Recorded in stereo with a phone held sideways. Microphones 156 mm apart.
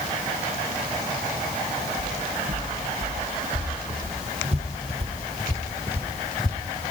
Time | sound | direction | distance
2.0 | footsteps | 55° right (ahead or behind) | 2.5 m